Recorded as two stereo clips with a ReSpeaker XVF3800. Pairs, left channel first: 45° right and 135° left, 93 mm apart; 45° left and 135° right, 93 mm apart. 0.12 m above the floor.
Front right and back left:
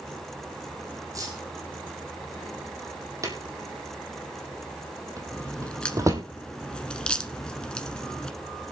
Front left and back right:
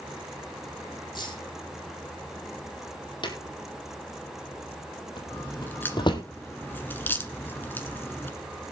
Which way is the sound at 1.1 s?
85° left.